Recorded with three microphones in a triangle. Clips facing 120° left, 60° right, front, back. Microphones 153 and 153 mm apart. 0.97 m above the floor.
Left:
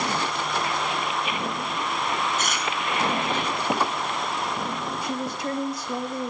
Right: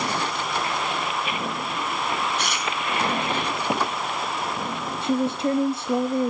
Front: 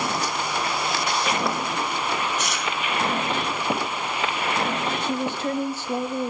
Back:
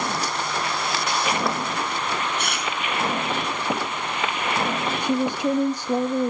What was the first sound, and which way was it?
Chewing, 155° left.